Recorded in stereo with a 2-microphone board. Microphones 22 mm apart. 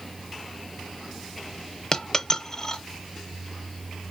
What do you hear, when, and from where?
1.9 s a dropped coin: 30° left (ahead or behind), 0.8 m